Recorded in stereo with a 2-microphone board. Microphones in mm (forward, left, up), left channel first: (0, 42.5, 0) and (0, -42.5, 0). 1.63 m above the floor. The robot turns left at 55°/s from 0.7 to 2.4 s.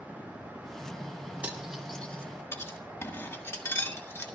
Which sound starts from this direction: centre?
Cutlery clinking, at 1.4 s.